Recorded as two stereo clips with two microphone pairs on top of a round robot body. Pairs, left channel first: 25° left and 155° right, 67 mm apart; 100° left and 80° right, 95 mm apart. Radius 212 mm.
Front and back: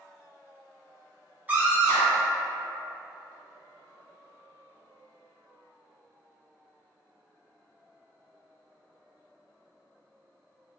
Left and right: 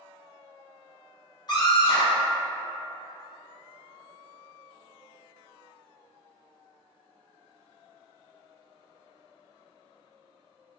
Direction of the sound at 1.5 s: 145° left.